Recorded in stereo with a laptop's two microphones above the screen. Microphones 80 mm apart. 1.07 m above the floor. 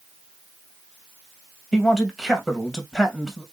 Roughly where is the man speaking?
Centre.